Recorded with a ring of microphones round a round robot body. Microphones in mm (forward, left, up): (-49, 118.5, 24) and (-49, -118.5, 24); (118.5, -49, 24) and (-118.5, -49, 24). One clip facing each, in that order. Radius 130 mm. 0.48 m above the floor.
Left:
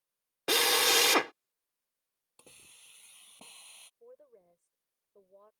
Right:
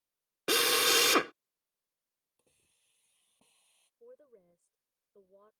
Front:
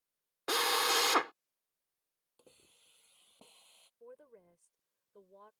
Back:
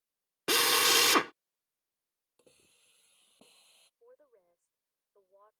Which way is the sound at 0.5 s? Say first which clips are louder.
Even, back 4 dB; 160° right.